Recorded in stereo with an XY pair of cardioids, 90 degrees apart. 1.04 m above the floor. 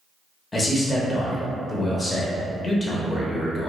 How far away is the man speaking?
About 0.7 m.